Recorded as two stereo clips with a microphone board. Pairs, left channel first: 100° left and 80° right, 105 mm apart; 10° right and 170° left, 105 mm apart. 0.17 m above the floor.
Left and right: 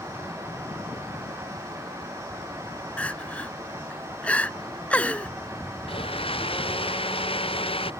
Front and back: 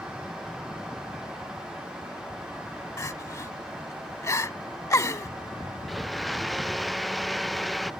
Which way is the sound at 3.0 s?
30° left.